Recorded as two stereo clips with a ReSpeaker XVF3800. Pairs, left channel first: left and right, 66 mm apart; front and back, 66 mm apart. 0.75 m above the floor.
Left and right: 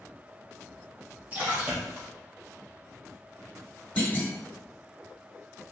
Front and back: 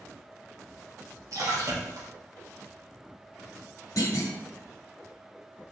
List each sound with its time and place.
1.3 s a splash: 150° right, 0.8 m
4.0 s a clunk: 20° left, 0.9 m